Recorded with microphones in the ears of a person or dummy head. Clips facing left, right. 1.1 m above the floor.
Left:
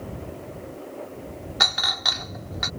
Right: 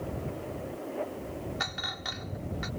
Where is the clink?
80° left.